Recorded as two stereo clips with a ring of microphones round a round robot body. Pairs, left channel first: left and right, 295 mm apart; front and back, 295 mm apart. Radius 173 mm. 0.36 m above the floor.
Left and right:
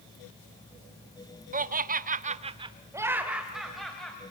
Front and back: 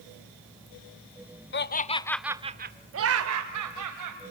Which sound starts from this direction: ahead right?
Laughter, at 1.5 s.